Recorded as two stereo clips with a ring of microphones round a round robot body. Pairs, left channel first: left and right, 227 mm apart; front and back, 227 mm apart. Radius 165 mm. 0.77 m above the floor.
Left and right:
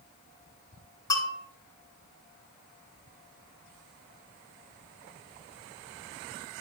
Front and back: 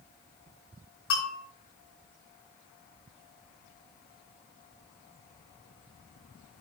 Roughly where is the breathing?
No breathing in this recording.